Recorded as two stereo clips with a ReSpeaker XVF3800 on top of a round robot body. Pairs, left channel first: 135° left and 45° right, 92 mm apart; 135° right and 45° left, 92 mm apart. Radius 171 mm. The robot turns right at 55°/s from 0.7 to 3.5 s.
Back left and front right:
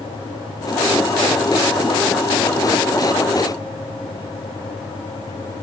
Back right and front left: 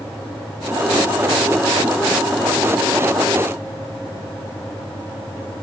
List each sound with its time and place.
Only background noise.